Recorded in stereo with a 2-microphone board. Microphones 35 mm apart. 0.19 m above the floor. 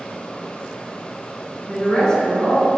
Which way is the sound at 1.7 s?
25° left (ahead or behind).